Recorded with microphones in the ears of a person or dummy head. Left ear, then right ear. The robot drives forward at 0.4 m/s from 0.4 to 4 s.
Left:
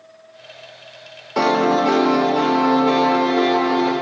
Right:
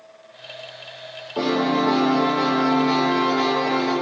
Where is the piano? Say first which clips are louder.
Left 5 dB; 65° left (ahead or behind), 0.8 m; by 3.9 s 30° left (ahead or behind), 1.6 m.